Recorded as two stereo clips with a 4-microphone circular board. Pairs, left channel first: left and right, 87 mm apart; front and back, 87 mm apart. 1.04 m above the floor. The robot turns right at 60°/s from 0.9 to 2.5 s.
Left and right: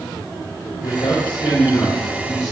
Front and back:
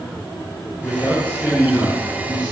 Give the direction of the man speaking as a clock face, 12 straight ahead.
10 o'clock.